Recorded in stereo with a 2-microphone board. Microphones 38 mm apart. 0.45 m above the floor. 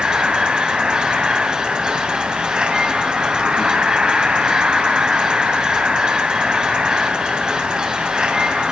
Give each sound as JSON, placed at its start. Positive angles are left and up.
{"t": 0.0, "sound": "an insect", "side_deg": -20, "distance_m": 2.5}